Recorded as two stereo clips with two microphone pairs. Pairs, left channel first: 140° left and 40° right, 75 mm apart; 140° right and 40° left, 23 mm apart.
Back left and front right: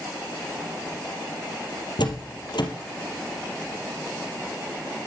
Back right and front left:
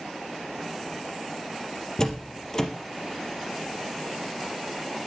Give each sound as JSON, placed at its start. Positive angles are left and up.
{"t": 2.0, "sound": "a door slam", "azimuth_deg": 150, "distance_m": 3.0}